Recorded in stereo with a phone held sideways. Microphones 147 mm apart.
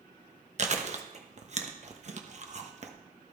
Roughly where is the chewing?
Right.